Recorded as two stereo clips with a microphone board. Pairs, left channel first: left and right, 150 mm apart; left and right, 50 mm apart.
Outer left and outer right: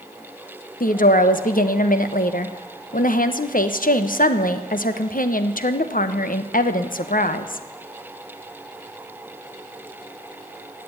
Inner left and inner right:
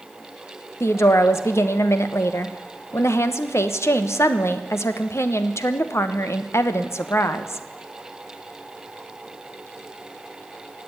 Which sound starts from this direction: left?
A woman speaking, at 0.8 s.